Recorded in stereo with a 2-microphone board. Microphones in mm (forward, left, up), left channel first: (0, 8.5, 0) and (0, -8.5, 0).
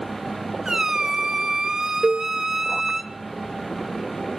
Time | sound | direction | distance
0.7 | a squeak | 40° right (ahead or behind) | 1.5 m
2.0 | a cowbell | centre (ahead or behind) | 0.7 m